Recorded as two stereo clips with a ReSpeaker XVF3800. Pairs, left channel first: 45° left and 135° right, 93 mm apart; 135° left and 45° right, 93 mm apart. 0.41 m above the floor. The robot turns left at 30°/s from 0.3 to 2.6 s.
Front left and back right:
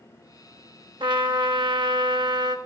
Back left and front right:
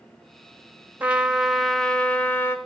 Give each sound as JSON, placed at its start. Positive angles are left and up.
{"t": 1.0, "sound": "a trumpet", "azimuth_deg": -120, "distance_m": 0.7}